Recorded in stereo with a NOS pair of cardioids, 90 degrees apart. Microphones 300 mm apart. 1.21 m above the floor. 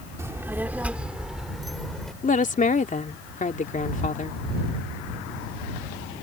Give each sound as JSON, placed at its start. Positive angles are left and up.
{"t": 0.2, "sound": "a child speaking", "azimuth_deg": -10}
{"t": 2.2, "sound": "a woman speaking", "azimuth_deg": 25}